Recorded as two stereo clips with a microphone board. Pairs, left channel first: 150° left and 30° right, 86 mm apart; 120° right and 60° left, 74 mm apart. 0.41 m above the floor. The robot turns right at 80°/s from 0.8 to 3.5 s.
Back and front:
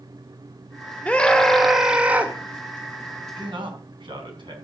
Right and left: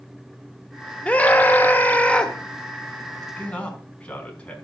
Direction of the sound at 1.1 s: 160° right.